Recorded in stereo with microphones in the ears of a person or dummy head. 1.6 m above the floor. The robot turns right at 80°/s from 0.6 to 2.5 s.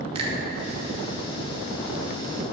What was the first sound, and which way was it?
A finger snap, 35° right (ahead or behind).